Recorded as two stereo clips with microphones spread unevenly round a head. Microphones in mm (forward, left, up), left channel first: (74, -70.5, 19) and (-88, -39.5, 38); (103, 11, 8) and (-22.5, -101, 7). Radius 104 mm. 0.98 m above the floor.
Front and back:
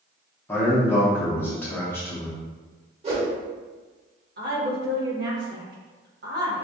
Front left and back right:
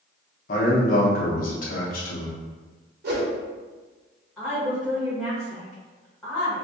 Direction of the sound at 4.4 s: 130° left.